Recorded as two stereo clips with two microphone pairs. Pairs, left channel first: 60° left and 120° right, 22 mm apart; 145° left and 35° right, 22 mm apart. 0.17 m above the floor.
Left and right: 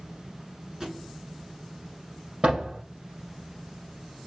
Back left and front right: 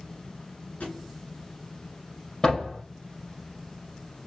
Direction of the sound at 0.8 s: 170° left.